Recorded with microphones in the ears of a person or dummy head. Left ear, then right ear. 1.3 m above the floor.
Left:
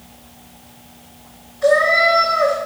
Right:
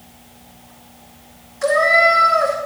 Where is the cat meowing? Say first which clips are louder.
Even; 50° right (ahead or behind), 1.5 m.